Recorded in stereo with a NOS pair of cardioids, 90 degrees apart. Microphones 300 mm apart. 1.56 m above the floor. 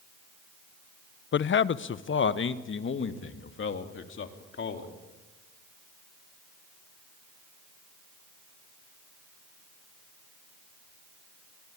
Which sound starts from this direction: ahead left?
A man speaking, at 1.3 s.